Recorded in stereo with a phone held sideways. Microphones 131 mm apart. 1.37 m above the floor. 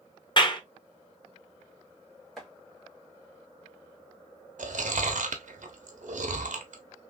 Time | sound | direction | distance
0.4 | a clap | 35° left (ahead or behind) | 0.7 m
2.4 | chopping | centre (ahead or behind) | 1.3 m
4.6 | chewing | 75° right (ahead or behind) | 0.7 m